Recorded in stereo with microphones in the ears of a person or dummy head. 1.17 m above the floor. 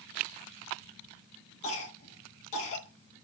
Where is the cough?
35° left (ahead or behind), 1.4 m.